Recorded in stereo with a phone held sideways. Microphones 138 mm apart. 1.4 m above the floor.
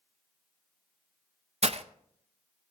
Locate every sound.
1.6 s breaking glass: 50° right (ahead or behind), 0.7 m